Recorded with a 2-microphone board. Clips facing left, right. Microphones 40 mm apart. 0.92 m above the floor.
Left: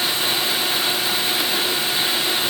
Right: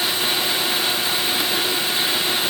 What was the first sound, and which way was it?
Only background noise.